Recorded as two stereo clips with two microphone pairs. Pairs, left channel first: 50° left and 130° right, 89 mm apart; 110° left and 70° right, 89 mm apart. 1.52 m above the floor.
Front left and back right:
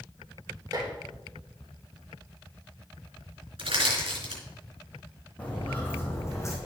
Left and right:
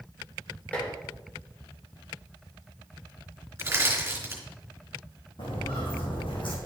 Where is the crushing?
130° right, 3.5 m.